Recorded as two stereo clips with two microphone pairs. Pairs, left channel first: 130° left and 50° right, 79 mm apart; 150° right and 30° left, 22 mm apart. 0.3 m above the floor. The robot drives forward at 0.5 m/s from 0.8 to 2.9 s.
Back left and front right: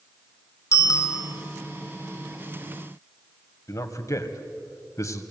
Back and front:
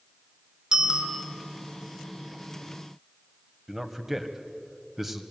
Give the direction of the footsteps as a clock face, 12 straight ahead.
No footsteps in this recording.